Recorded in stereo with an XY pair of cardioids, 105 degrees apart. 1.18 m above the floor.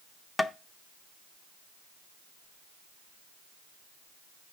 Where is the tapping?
25° left, 0.7 m.